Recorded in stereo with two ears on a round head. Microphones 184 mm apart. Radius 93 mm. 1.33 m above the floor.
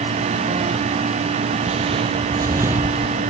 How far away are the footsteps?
About 1.7 m.